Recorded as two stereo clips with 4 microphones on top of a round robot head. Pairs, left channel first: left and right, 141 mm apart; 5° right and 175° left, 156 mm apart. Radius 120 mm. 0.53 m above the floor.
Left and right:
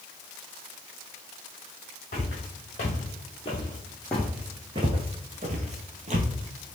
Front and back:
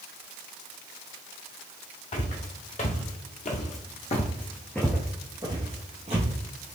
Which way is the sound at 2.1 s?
35° left.